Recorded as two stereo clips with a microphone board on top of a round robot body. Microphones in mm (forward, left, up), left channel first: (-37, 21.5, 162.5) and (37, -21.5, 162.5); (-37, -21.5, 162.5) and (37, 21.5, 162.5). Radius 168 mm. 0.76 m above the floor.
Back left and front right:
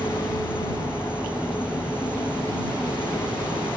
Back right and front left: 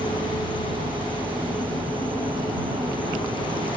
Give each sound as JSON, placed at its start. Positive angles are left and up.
{"t": 0.0, "sound": "an insect", "azimuth_deg": 45}